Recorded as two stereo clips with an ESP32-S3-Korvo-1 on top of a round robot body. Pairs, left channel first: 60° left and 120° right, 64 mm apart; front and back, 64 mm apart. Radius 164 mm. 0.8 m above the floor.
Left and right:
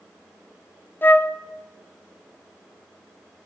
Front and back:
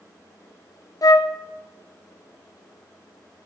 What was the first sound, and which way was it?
A flute, 5° left.